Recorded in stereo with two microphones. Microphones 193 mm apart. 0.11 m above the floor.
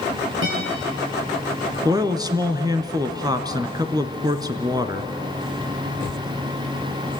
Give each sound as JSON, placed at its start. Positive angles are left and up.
{"t": 0.4, "sound": "a guitar", "side_deg": -85, "distance_m": 8.0}
{"t": 1.9, "sound": "a man speaking", "side_deg": -20, "distance_m": 1.4}